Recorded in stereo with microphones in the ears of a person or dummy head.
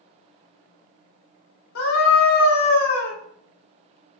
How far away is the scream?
About 2.5 m.